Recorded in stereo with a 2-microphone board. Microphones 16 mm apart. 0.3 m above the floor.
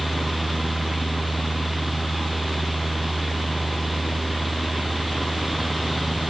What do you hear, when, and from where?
Only background noise.